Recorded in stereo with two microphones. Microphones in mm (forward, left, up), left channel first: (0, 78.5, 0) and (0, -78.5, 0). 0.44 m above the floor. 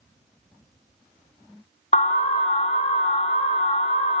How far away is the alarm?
About 0.6 m.